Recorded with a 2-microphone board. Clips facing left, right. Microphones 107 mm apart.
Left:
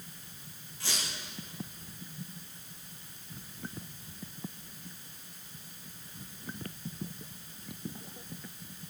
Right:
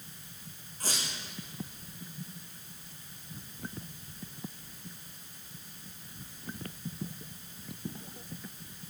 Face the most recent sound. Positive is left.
turn(degrees=-40)  # may be behind; listen again after turning